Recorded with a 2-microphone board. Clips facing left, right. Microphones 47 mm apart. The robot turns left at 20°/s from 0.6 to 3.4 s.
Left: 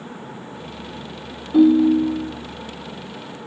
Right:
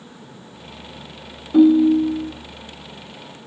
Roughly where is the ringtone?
Centre.